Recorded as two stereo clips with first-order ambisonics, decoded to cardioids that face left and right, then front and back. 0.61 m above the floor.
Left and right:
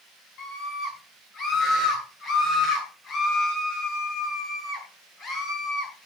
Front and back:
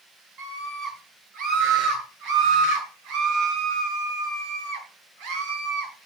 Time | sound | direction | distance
0.4 | a scream | 140° left | 9.5 m